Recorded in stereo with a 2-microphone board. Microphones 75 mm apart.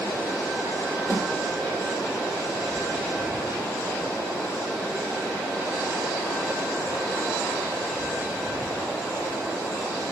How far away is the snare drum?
About 2.0 m.